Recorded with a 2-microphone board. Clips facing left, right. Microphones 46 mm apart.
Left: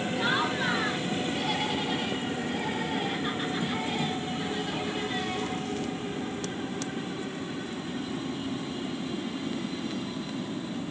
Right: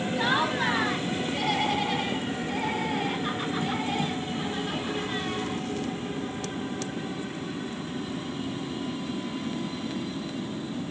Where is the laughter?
65° right (ahead or behind), 3 m; by 5.6 s 40° right (ahead or behind), 5 m.